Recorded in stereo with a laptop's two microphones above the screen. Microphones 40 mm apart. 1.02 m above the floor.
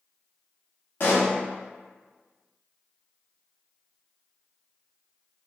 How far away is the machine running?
No machine running in this recording.